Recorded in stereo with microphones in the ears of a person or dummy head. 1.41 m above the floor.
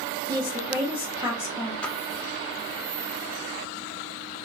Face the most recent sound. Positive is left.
turn(degrees=5)  # may be behind; listen again after turning